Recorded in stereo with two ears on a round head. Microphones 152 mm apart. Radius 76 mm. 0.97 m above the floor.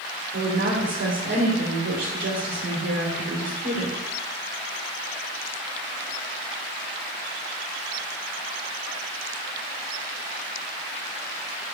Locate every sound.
0.3 s a woman speaking: 70° right (ahead or behind), 3 m